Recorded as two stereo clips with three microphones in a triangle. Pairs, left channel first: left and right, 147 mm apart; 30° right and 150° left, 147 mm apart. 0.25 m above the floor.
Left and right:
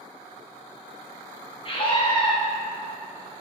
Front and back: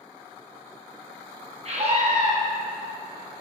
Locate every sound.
1.6 s a scream: 130° left, 1.8 m